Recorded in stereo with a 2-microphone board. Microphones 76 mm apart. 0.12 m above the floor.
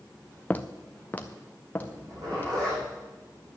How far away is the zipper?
About 7 m.